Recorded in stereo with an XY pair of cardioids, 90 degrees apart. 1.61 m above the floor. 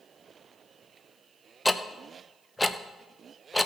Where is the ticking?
10° left, 0.8 m.